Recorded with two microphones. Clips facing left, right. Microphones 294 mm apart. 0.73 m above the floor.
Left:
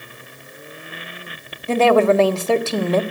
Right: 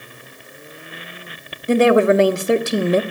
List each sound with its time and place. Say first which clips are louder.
1.7 s a woman speaking: right 2 dB; 15° right (ahead or behind), 1.0 m